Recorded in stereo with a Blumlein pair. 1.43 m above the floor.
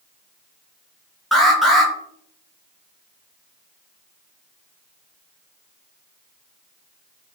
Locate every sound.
1.3 s an alarm: 5° left, 2 m